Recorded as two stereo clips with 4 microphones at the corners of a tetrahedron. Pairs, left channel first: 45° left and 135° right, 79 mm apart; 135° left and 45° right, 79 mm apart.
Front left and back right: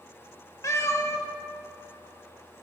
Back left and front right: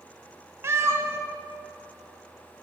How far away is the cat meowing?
About 0.5 m.